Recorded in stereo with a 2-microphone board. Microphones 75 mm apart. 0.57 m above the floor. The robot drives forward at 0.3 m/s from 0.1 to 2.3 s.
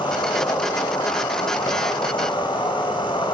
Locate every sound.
0.0 s an insect: 75° left (ahead or behind), 2 m; by 3.3 s 80° left, 2.0 m